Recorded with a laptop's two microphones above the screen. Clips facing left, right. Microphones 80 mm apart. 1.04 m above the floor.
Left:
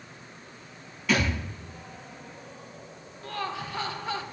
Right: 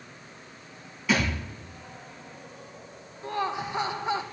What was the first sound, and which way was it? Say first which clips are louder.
A thud: even; 5° right (ahead or behind).